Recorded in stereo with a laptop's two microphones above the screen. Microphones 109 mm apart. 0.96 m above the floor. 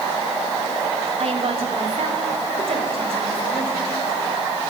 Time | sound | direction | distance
1.2 | a woman speaking | 65° right (ahead or behind) | 2.5 m